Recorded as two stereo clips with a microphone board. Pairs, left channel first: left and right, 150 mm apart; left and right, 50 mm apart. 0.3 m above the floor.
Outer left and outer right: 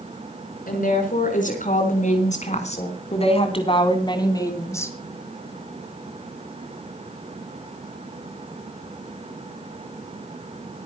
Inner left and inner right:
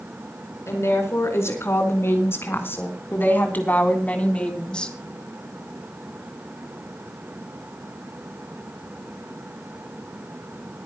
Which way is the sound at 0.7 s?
65° left (ahead or behind).